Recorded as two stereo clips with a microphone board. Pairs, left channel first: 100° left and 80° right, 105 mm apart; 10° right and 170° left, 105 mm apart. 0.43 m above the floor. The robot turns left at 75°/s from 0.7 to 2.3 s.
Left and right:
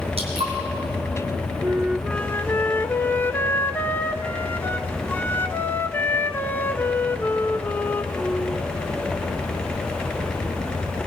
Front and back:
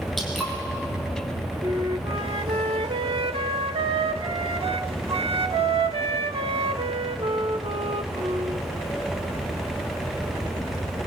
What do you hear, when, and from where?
0.2 s dripping: 100° right, 4.5 m
1.6 s a flute: 140° right, 0.5 m; by 8.6 s 170° left, 0.5 m